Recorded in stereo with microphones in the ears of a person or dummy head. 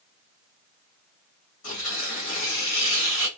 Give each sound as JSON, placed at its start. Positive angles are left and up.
{"t": 1.6, "sound": "tearing paper", "side_deg": 50, "distance_m": 1.1}